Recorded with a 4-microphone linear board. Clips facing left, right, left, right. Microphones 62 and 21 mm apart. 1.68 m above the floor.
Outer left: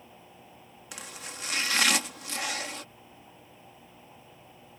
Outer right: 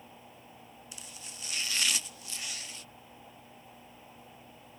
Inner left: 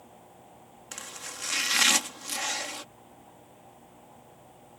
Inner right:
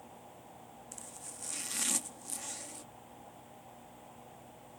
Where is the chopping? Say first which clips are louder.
Outer left 11 dB, inner left 12 dB; 75° left (ahead or behind).